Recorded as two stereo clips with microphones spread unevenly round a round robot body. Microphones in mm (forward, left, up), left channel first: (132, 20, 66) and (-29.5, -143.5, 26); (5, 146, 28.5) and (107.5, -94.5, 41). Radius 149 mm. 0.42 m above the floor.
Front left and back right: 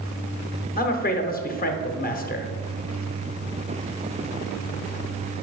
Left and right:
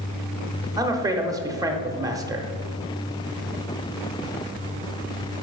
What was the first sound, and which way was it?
A man speaking, 5° left.